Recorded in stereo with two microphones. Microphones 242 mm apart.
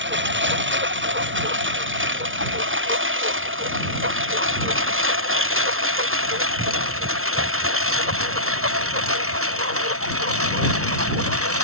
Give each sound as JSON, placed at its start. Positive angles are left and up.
{"t": 0.0, "sound": "a lawn mower", "side_deg": -50}